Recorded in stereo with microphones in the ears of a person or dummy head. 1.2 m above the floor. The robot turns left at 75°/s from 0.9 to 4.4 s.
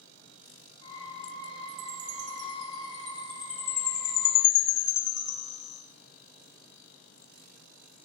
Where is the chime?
45° right, 4.5 m; by 5.8 s 110° left, 4.5 m.